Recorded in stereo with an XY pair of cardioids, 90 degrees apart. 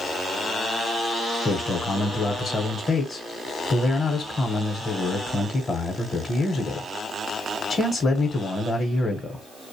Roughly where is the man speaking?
Ahead left.